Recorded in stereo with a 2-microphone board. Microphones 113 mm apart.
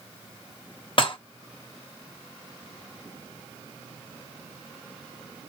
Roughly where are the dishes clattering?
Left.